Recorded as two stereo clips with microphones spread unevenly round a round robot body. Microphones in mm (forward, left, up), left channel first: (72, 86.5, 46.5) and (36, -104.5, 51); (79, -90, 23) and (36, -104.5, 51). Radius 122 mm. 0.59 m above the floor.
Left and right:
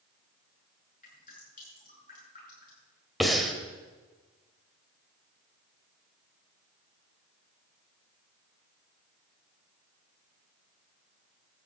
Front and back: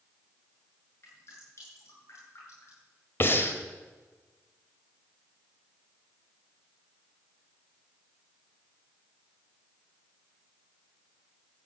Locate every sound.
1.0 s dripping: 35° left, 8.5 m
3.2 s breathing: 10° right, 1.9 m